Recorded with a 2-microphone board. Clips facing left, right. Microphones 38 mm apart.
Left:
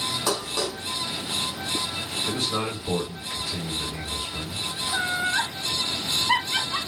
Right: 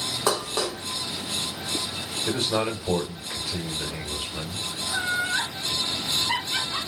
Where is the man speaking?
45° right (ahead or behind), 1.4 m.